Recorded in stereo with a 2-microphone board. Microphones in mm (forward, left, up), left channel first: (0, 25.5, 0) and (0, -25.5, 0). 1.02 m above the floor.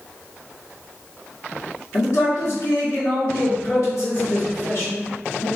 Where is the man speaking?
70° left (ahead or behind), 1.6 m.